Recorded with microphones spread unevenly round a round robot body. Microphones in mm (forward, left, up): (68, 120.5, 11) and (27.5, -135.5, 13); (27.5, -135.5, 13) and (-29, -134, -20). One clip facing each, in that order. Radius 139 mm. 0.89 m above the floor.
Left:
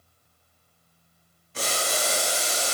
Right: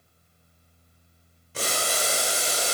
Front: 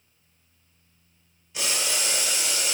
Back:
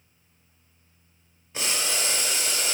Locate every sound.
1.5 s boiling: 115° right, 1.1 m